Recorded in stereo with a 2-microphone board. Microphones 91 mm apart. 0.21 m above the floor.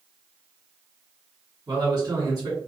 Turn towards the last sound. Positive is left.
turn(degrees=-45)  # may be behind; listen again after turning